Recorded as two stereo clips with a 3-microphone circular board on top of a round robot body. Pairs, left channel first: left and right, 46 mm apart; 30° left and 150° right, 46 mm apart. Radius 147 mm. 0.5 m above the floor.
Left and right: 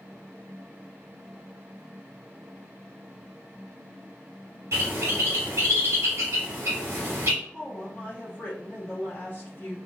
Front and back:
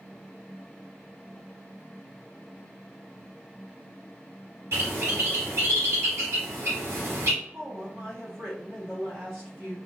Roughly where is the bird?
Behind right.